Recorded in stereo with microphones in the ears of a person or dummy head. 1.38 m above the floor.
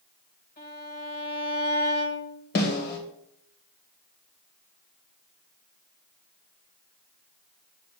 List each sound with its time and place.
0.6 s a violin: 50° left (ahead or behind), 3 m
2.5 s a snare drum: 55° left (ahead or behind), 2.5 m